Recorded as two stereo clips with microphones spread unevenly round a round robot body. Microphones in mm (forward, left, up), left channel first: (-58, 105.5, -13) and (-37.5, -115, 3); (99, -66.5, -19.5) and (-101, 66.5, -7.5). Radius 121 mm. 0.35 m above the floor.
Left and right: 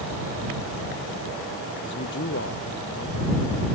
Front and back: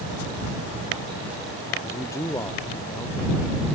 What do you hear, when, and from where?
1.8 s a man speaking: 45° left